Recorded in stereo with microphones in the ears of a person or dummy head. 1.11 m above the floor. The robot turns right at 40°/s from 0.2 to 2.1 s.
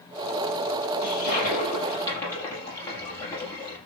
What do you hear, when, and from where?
1.0 s a toilet flushing: 120° left, 7 m; by 3.8 s 165° left, 7 m